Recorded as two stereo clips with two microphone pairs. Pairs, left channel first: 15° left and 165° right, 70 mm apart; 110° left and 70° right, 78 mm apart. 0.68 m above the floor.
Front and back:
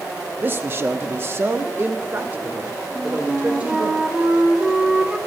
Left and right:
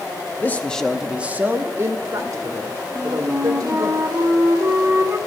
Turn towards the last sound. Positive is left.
turn(degrees=-90)